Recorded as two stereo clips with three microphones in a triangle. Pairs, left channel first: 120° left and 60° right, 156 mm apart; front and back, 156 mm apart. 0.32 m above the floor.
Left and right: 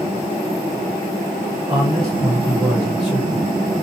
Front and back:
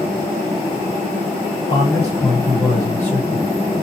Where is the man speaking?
5° right, 1.4 m; by 3.8 s 145° left, 1.0 m.